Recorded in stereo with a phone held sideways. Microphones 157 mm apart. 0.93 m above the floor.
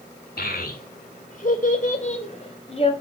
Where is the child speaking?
75° left (ahead or behind), 2.5 m; by 2.9 s 40° left (ahead or behind), 3.5 m.